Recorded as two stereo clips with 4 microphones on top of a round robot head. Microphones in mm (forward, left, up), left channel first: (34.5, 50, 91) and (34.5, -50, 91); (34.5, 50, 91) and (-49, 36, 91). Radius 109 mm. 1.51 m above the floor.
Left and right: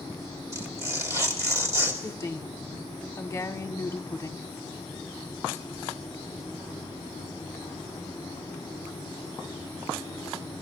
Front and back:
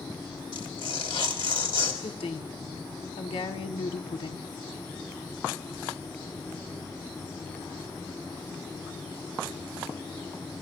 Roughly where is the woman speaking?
Ahead left.